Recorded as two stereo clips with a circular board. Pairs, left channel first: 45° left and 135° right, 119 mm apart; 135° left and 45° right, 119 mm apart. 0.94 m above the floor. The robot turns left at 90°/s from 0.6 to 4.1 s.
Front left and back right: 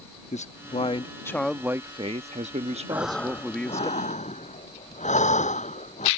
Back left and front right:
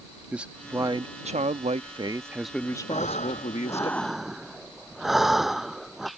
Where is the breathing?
150° left; by 6.1 s 45° left.